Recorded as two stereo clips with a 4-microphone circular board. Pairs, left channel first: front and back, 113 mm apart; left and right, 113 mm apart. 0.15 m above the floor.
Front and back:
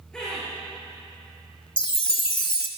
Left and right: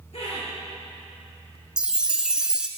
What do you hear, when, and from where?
0.1 s laughter: 85° left, 2 m
1.8 s a chime: 10° right, 0.6 m